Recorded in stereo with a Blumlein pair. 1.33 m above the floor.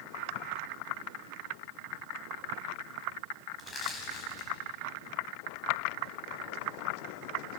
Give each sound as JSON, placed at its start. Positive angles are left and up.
{"t": 3.6, "sound": "crushing", "azimuth_deg": 25, "distance_m": 5.5}